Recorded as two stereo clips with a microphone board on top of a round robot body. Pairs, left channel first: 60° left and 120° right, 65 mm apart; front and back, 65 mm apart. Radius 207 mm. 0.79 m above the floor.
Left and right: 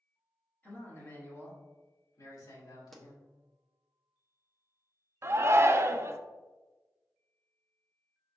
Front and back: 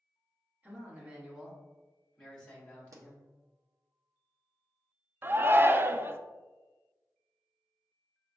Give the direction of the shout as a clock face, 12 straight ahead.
5 o'clock.